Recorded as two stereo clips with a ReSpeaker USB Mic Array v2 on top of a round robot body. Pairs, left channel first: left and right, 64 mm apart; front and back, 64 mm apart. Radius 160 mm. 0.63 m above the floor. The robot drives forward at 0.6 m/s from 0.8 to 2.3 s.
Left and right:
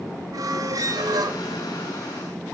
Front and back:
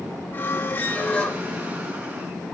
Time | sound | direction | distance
0.3 | a squeak | 60° right | 1.1 m